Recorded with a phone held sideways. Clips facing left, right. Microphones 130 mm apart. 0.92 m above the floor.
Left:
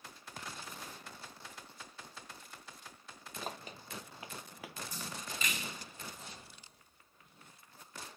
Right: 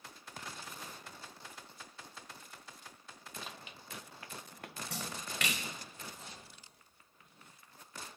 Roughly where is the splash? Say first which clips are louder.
Right 2 dB; right.